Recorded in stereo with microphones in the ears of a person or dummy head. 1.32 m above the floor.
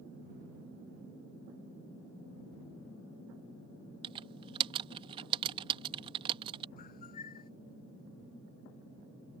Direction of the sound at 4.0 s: 30° right (ahead or behind).